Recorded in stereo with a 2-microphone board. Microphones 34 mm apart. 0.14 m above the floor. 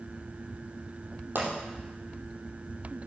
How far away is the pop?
About 4.5 m.